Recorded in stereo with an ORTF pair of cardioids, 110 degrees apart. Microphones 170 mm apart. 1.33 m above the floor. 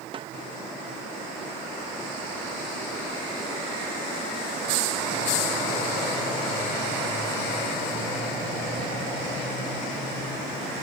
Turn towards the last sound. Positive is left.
turn(degrees=-30)